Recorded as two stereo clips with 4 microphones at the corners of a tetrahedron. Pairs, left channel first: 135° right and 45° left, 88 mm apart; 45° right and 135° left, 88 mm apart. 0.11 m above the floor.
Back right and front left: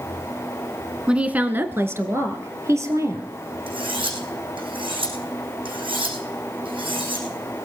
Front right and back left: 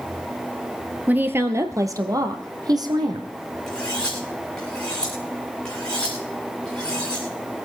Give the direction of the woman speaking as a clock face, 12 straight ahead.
9 o'clock.